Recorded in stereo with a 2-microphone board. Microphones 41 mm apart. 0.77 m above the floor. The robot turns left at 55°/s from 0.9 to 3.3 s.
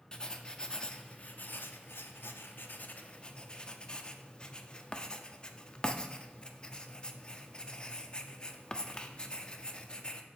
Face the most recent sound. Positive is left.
turn(degrees=25)  # may be behind; listen again after turning